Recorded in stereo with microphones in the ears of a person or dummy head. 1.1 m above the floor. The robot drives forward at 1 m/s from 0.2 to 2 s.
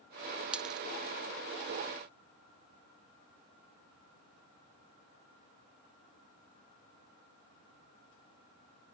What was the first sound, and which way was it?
A dropped coin, centre (ahead or behind).